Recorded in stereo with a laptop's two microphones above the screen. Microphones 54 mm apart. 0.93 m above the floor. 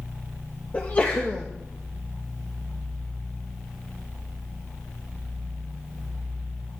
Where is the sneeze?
30° left (ahead or behind), 0.9 m.